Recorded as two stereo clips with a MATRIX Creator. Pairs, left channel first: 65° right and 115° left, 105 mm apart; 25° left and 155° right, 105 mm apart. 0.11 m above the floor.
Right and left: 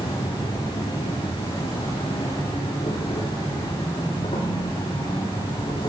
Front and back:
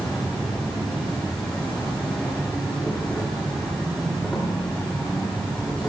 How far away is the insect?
About 4 m.